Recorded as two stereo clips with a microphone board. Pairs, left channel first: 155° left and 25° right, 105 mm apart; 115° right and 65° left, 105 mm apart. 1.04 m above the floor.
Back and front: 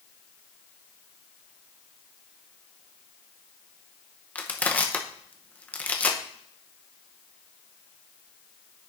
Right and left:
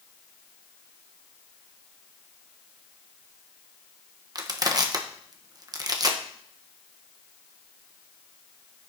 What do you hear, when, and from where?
4.3 s crushing: 90° left, 0.9 m